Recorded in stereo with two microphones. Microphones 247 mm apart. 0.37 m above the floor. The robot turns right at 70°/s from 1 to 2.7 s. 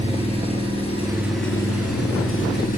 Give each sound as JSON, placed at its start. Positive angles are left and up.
{"t": 0.0, "sound": "an engine running", "azimuth_deg": 25, "distance_m": 6.0}